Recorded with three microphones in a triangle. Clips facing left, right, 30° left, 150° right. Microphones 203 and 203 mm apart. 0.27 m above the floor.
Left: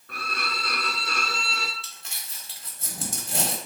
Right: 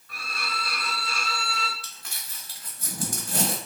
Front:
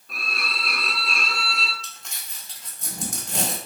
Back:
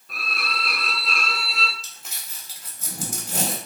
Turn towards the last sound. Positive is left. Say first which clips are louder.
# even, front 1 dB
turn(degrees=130)